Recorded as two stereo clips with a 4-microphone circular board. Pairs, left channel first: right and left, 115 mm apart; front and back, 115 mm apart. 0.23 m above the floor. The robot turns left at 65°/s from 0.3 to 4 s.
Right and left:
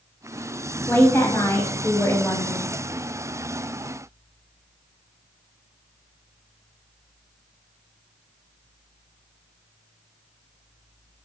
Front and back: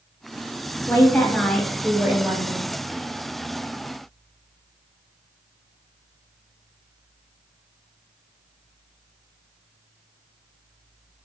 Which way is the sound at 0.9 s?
35° right.